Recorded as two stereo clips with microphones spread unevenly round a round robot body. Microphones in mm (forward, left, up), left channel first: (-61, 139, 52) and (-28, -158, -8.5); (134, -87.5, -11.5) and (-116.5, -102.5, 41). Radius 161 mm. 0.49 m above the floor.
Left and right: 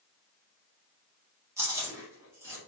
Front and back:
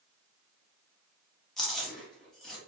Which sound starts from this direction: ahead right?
Chewing, at 1.6 s.